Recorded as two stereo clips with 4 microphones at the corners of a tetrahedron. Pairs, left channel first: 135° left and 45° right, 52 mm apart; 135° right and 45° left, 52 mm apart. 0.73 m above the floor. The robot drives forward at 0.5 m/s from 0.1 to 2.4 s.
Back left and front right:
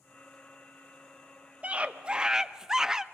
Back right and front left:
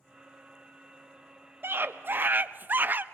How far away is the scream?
About 0.8 m.